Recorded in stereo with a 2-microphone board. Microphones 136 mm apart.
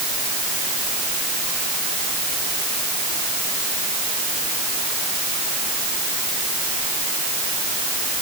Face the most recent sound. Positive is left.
No sound to turn to.